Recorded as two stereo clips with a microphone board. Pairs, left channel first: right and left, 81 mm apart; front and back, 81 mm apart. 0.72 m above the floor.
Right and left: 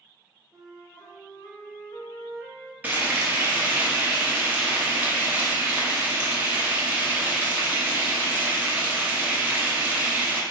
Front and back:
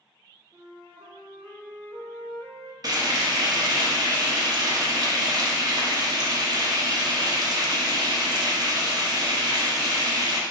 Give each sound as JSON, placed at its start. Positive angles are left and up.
{"t": 0.5, "sound": "a flute", "azimuth_deg": -170, "distance_m": 1.1}
{"t": 2.8, "sound": "frying", "azimuth_deg": 155, "distance_m": 0.8}